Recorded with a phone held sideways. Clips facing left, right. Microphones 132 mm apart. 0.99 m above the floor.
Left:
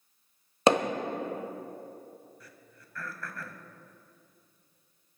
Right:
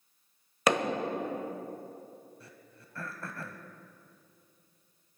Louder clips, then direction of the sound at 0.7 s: Left 4 dB; 30° left (ahead or behind).